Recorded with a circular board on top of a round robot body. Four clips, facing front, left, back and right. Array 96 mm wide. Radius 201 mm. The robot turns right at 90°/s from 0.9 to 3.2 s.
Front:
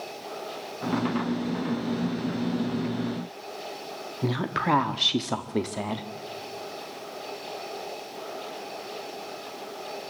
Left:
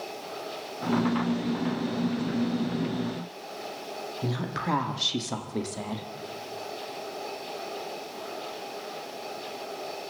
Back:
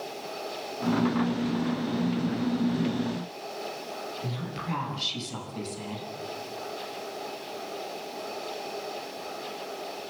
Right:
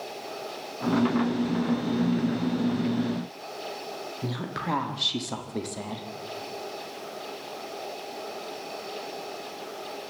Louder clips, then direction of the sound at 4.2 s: Left 1 dB, front 8 dB; 5° left.